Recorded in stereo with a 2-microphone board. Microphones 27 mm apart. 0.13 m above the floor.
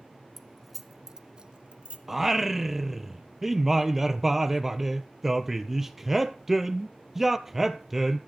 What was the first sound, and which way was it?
Keys jangling, 10° left (ahead or behind).